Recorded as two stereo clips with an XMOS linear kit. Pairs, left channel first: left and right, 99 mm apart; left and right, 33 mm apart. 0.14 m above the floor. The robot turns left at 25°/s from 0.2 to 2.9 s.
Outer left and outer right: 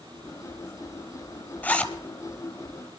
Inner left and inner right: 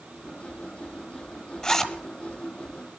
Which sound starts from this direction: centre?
A zipper, at 1.6 s.